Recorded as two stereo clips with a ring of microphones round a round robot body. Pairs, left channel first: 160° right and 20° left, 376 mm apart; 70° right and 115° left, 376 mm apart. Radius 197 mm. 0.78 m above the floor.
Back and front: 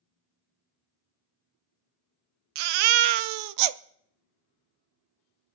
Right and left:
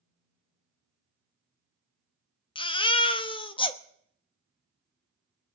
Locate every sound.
2.5 s a baby crying: 10° left, 0.6 m